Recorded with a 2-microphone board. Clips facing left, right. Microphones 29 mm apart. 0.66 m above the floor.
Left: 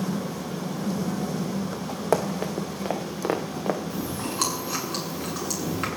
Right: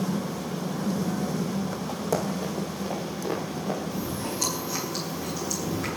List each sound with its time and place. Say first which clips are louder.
2.1 s running footsteps: left 4 dB; 50° left (ahead or behind), 3 m; by 3.8 s 75° left (ahead or behind), 3.5 m
3.9 s chewing: left 1 dB; 85° left, 8 m